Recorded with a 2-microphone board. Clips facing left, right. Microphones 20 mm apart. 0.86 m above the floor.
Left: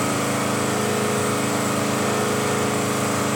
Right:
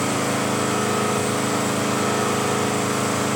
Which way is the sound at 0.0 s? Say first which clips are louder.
Even; 20° right (ahead or behind).